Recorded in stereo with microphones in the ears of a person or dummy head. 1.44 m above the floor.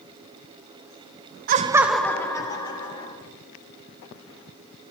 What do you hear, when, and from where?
1.5 s laughter: 45° right (ahead or behind), 0.5 m; by 3.1 s 25° left (ahead or behind), 2 m